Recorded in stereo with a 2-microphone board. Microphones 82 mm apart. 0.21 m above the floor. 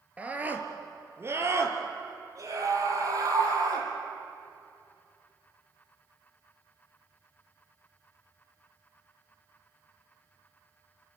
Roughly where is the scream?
Centre.